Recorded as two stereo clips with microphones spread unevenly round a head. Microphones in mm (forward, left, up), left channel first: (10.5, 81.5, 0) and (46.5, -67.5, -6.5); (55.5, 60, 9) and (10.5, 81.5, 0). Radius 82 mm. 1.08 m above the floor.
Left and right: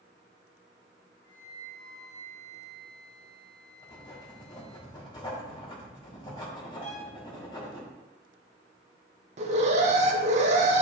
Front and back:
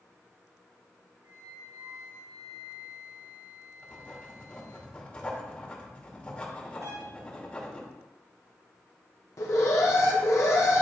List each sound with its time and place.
1.2 s a flute: straight behind, 3.5 m
3.8 s writing: 40° left, 2.5 m
6.8 s a violin: 150° left, 3.5 m
9.4 s an alarm: 50° right, 1.1 m